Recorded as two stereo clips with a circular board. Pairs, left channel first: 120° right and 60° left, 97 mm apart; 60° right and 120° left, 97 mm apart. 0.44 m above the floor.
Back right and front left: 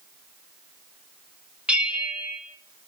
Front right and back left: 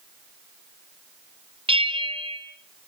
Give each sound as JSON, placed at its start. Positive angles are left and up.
{"t": 1.7, "sound": "a bell", "azimuth_deg": 135, "distance_m": 3.5}